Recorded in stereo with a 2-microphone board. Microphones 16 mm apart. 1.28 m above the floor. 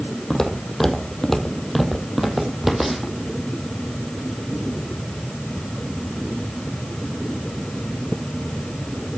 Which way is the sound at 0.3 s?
35° left (ahead or behind).